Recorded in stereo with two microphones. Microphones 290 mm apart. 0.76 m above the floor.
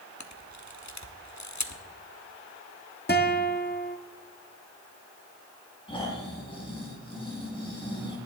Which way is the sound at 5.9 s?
15° left (ahead or behind).